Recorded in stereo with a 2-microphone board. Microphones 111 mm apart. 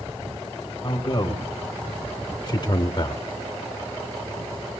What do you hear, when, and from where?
0.8 s a man speaking: 40° left (ahead or behind), 4.5 m; by 3.2 s 35° left (ahead or behind), 3 m